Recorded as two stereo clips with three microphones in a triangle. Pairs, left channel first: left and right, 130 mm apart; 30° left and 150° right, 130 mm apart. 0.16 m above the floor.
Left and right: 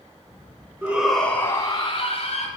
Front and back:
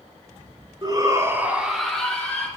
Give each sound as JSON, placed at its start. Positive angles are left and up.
{"t": 0.8, "sound": "a shout", "azimuth_deg": -160, "distance_m": 1.6}